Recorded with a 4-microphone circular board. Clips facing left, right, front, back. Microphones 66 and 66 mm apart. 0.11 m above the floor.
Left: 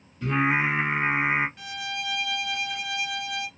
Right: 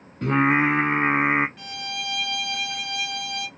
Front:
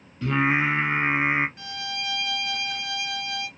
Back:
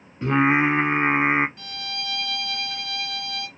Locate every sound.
0.2 s singing: 120° right, 0.7 m
1.6 s a violin: straight ahead, 1.3 m